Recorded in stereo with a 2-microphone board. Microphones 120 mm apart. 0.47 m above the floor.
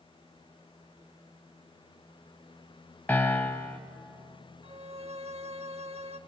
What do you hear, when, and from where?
3.1 s a piano: 15° left (ahead or behind), 0.9 m
4.6 s a violin: 60° right (ahead or behind), 0.7 m